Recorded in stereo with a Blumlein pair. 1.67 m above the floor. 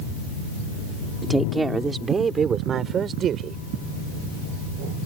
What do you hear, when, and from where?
1.2 s a woman speaking: 5° right; by 3.6 s 30° right